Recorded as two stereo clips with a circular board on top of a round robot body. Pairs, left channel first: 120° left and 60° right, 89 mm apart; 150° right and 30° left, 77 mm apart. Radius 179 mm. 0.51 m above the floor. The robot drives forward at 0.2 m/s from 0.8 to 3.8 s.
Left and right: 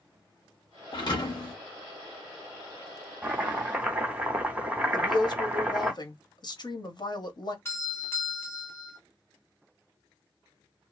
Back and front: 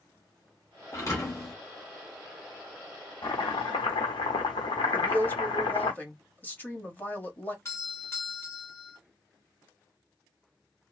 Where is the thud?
160° left, 1.0 m.